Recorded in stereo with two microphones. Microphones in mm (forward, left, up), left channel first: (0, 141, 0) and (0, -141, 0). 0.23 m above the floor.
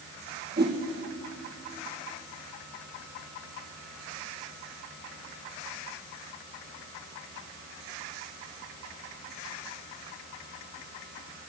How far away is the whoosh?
About 2 m.